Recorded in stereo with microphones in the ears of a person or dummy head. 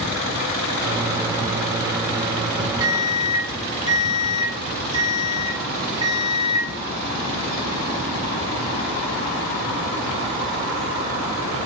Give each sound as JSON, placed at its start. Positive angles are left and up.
{"t": 0.8, "sound": "a microwave", "side_deg": -20, "distance_m": 0.8}